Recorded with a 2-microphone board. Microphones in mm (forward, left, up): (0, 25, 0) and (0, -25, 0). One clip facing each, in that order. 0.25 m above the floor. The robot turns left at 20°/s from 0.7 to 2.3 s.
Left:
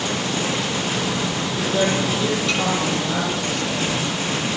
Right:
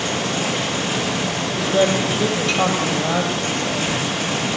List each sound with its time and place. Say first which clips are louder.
1.6 s a woman speaking: right 3 dB; 15° right (ahead or behind), 8.5 m; by 3.9 s 30° right (ahead or behind), 8.5 m